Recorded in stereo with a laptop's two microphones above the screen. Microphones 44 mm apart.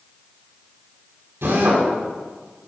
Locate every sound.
1.4 s a drill: 85° right, 5.5 m